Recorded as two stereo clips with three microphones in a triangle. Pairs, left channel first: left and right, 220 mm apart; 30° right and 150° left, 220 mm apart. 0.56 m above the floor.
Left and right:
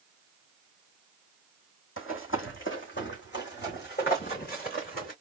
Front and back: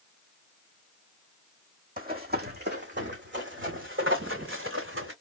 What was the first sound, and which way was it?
Running footsteps, 105° left.